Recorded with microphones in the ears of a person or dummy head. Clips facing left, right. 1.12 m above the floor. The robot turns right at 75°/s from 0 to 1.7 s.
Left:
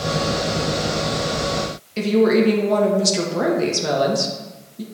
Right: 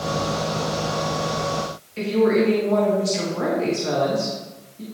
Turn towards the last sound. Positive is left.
turn(degrees=60)  # may be behind; listen again after turning